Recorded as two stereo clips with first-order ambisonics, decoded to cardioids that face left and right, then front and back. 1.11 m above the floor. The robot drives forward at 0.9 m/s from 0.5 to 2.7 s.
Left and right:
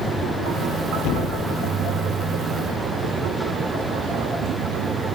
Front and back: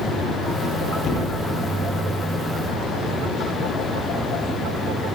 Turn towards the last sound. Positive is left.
turn(degrees=70)